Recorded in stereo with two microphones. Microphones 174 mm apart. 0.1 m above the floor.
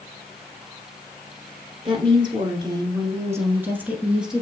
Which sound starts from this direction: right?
A woman speaking, at 1.9 s.